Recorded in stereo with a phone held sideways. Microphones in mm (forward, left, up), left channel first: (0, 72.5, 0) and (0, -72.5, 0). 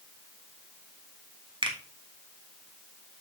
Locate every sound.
1.6 s a finger snap: 35° right (ahead or behind), 1.5 m